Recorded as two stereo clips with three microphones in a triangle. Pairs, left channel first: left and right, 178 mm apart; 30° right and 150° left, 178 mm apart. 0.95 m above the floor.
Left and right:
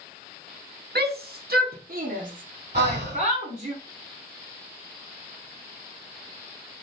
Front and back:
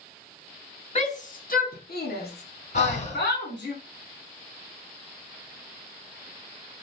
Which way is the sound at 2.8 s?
75° right.